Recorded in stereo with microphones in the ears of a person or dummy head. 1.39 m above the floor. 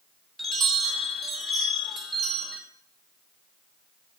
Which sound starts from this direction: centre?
A chime, at 0.4 s.